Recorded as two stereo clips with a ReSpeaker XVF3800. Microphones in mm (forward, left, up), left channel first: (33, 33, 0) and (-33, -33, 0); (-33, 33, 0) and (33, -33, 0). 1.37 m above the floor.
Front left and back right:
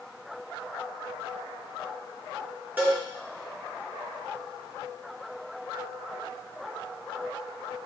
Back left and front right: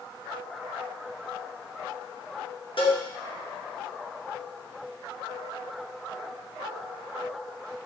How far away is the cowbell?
About 3.5 m.